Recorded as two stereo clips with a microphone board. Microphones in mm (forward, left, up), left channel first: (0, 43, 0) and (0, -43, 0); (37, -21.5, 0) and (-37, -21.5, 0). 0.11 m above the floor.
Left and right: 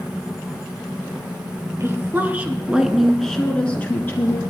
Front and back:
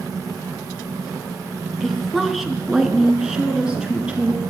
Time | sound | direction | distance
1.8 | a woman speaking | 85° right | 1.5 m